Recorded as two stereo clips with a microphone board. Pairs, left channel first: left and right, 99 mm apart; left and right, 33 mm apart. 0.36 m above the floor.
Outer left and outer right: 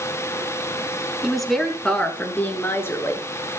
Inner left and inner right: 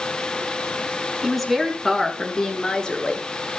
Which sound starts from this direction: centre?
A woman speaking, at 1.2 s.